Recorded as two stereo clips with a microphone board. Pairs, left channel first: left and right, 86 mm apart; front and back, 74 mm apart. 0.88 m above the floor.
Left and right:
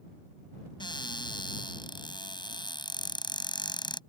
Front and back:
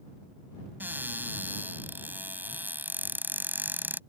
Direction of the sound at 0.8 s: 115° left.